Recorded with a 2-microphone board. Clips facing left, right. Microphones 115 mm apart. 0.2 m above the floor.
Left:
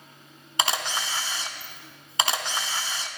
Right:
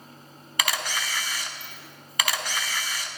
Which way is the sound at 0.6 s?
25° left (ahead or behind).